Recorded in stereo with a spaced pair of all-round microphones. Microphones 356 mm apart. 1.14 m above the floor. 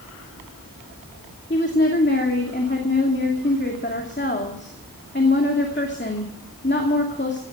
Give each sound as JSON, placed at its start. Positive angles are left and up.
{"t": 1.5, "sound": "a woman speaking", "side_deg": 30, "distance_m": 2.5}